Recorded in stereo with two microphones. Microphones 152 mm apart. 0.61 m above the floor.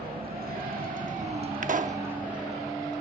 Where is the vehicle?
80° right; by 3.0 s 5° left (ahead or behind).